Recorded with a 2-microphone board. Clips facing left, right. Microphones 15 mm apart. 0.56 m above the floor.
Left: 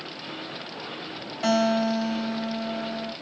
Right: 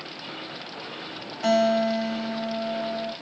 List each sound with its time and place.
1.4 s a guitar: 20° left (ahead or behind), 1.5 m